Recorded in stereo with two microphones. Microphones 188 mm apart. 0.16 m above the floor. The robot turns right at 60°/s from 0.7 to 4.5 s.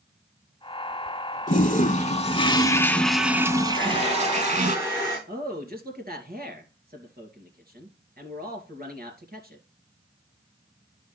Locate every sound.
1.5 s a toilet flushing: 80° left, 0.7 m; by 4.8 s 100° right, 0.7 m
3.8 s a hair dryer: 55° right, 7 m; by 5.2 s 10° right, 7 m
5.3 s a man speaking: 55° right (ahead or behind), 2.5 m